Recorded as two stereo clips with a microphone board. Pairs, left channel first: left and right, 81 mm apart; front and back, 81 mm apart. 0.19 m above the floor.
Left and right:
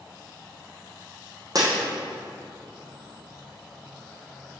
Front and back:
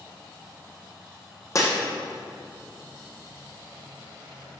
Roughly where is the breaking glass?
Ahead right.